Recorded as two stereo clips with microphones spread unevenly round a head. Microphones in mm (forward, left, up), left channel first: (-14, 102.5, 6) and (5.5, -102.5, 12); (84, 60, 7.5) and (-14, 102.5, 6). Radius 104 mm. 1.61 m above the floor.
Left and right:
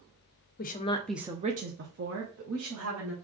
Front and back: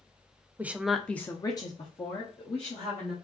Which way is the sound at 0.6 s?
90° left.